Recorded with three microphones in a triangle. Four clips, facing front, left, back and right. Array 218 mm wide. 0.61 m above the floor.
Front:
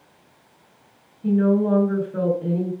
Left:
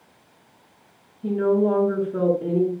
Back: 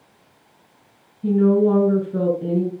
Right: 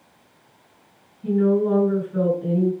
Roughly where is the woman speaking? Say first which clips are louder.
Right 1 dB, back 3 dB; behind left.